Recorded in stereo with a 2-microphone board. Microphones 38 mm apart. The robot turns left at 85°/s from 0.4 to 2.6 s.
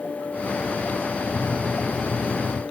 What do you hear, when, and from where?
1.3 s a microwave: straight behind, 0.7 m; by 2.6 s 70° left, 0.7 m